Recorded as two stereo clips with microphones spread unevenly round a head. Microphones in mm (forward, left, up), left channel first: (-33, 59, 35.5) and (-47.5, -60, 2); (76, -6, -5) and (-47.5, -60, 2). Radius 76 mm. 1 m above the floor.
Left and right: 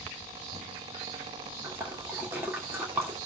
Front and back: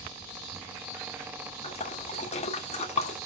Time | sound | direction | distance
1.6 | a splash | 20° right | 2 m